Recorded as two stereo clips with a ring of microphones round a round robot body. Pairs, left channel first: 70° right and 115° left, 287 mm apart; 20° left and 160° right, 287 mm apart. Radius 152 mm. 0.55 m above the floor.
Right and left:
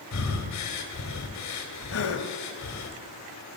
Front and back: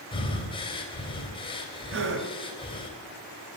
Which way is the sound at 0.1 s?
50° right.